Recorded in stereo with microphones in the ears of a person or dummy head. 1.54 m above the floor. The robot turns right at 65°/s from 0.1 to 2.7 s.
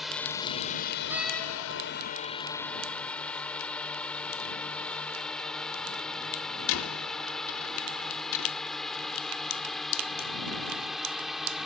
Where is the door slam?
10° right (ahead or behind); by 8.5 s 75° left (ahead or behind).